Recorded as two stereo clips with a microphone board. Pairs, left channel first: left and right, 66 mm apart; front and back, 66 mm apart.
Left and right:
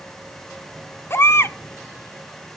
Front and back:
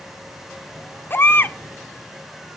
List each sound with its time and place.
1.1 s a baby crying: 50° left, 1.2 m